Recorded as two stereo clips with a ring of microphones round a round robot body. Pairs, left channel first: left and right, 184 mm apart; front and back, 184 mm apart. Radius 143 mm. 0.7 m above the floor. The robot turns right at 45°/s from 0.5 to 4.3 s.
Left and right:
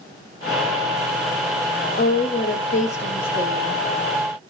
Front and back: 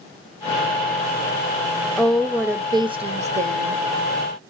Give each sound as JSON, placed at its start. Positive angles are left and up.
{"t": 2.0, "sound": "a woman speaking", "azimuth_deg": 80, "distance_m": 0.6}